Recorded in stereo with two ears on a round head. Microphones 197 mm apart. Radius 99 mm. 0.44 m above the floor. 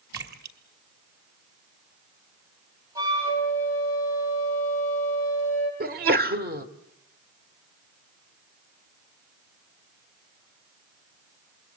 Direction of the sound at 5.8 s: 45° right (ahead or behind).